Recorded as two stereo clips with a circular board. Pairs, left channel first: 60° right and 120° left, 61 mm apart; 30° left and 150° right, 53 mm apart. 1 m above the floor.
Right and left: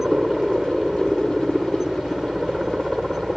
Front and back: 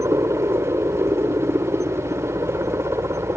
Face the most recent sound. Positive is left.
turn(degrees=-160)